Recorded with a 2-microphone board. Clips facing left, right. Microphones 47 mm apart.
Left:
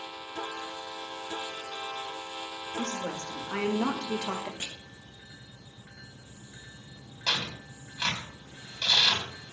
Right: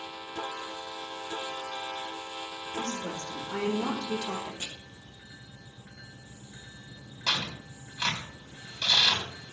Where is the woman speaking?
70° left (ahead or behind), 2.5 m; by 4.5 s 55° left (ahead or behind), 1.5 m.